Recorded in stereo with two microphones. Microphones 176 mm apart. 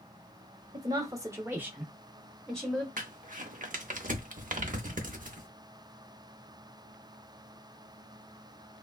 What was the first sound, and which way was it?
A woman speaking, 25° right (ahead or behind).